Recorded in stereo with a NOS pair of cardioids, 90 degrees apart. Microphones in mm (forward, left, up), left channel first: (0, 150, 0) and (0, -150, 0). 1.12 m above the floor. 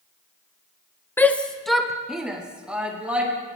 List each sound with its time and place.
1.2 s a shout: 5° left, 0.5 m; by 3.3 s 5° right, 2 m